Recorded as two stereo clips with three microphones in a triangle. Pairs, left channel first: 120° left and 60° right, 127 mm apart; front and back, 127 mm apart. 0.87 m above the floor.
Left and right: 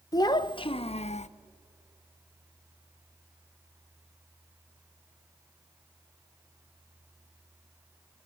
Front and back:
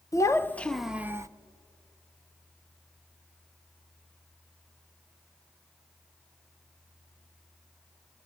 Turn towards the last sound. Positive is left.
turn(degrees=120)